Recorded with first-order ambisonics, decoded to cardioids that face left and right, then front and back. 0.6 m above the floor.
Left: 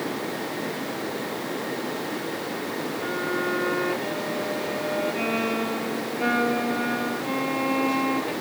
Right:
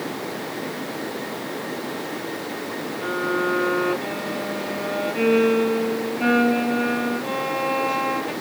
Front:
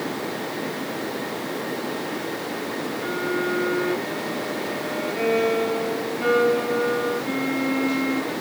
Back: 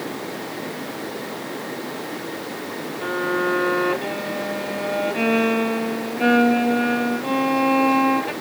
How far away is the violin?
About 1.5 m.